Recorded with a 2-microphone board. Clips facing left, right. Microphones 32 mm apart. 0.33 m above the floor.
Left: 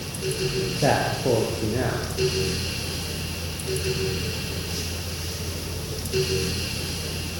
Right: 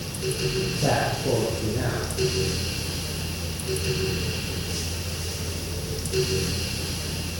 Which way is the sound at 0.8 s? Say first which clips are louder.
Left 3 dB; 60° left (ahead or behind).